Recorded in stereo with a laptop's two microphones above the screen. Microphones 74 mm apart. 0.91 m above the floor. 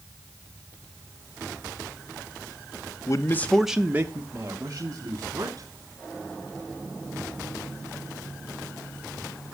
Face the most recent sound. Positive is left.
turn(degrees=-50)  # may be behind; listen again after turning